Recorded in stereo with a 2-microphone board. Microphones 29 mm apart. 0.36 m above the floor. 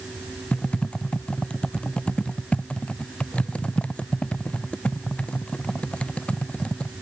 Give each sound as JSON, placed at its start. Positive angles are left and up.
{"t": 0.5, "sound": "typing on a keyboard", "side_deg": 45}